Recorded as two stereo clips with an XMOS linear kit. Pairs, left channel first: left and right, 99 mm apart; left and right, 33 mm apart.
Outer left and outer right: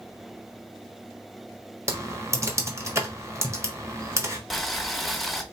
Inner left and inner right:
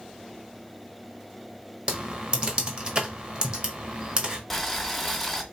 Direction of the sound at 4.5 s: Centre (ahead or behind).